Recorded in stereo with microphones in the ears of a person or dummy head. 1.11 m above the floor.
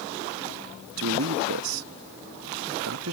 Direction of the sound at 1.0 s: 85° right.